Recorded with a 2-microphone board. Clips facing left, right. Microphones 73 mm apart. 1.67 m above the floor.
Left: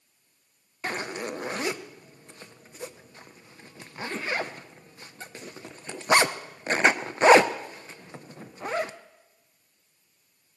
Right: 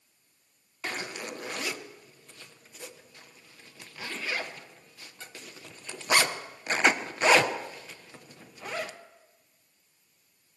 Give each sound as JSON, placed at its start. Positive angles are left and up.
{"t": 0.8, "sound": "a zipper", "side_deg": 30, "distance_m": 0.7}